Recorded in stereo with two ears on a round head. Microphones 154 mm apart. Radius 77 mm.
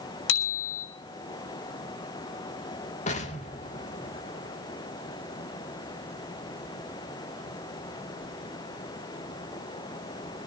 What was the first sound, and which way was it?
A bicycle bell, 85° left.